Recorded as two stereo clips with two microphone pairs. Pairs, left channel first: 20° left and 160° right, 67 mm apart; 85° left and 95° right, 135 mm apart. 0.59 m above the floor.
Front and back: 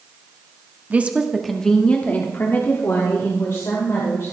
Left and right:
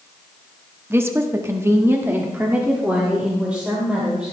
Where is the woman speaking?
145° right, 1.0 m; by 4.3 s 10° right, 3 m.